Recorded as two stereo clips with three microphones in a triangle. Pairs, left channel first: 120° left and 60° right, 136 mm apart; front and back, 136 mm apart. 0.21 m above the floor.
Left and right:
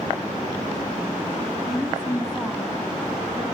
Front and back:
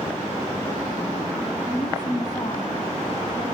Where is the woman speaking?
30° left, 1.6 m.